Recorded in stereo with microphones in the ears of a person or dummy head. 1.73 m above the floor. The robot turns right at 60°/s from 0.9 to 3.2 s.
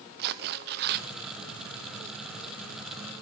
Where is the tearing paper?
55° right (ahead or behind), 0.9 m; by 1.1 s 50° right (ahead or behind), 0.9 m.